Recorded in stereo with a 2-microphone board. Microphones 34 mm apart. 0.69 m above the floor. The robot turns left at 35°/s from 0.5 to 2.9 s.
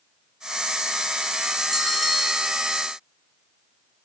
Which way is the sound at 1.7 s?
10° left (ahead or behind).